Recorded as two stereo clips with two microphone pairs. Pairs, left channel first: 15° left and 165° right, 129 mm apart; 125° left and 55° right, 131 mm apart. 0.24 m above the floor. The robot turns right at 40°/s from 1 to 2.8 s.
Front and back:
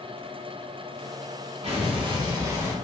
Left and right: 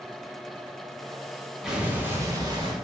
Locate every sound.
1.6 s an explosion: 135° right, 0.9 m; by 2.7 s 95° right, 0.9 m